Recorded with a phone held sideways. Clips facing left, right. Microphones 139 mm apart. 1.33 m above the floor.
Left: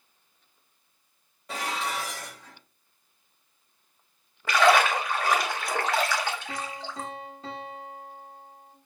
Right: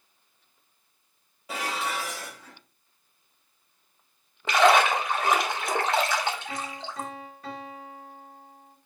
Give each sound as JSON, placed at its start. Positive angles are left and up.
{"t": 1.5, "sound": "dishes clattering", "side_deg": -5, "distance_m": 1.4}
{"t": 4.5, "sound": "a splash", "side_deg": -25, "distance_m": 0.8}
{"t": 6.5, "sound": "a piano", "side_deg": 25, "distance_m": 1.3}